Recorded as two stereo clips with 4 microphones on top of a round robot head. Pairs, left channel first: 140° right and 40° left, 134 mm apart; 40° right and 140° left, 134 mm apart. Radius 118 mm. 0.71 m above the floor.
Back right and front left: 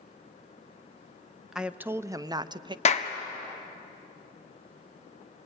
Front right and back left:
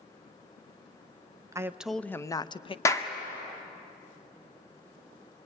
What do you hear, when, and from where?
1.5 s a woman speaking: 120° left, 0.7 m; by 2.8 s 5° right, 0.9 m
2.9 s a clap: 105° right, 1.6 m